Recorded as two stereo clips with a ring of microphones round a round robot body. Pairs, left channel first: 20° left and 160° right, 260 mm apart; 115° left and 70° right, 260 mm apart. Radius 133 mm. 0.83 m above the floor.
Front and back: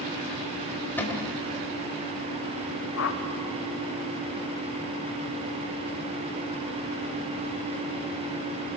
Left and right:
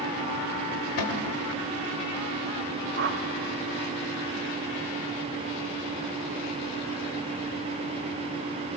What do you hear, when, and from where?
1.0 s a cupboard door: 105° left, 1.9 m
3.0 s a whoosh: 20° right, 1.3 m